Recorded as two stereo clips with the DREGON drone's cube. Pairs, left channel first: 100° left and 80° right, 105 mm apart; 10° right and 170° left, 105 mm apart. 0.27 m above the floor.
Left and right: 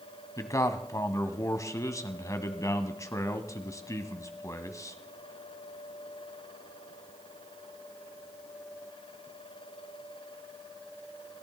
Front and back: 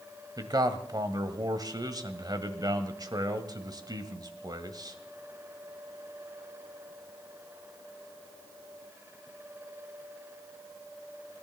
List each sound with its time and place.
0.4 s a man speaking: 140° left, 1.3 m